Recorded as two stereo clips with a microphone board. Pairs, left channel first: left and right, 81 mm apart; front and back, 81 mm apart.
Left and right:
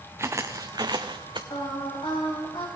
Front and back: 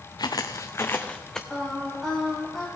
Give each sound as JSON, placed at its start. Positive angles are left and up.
{"t": 0.2, "sound": "footsteps", "azimuth_deg": -35, "distance_m": 0.9}
{"t": 1.5, "sound": "singing", "azimuth_deg": 90, "distance_m": 3.0}